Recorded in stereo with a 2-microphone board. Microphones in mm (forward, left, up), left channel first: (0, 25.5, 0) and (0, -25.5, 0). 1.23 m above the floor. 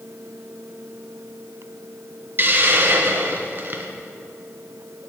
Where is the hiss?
45° right (ahead or behind), 0.8 m.